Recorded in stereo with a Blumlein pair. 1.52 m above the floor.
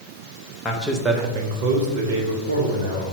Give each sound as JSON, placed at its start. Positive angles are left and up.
{"t": 0.7, "sound": "a man speaking", "azimuth_deg": 20, "distance_m": 0.7}